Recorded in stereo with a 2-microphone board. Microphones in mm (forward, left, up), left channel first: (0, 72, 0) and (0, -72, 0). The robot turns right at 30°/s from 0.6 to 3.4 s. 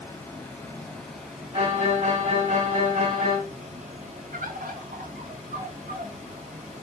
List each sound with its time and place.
0.0 s running water: 165° left, 1.6 m; by 6.8 s 115° right, 1.6 m
1.5 s a violin: 145° right, 2 m; by 3.4 s 90° right, 2 m
4.3 s a bird: 75° right (ahead or behind), 0.6 m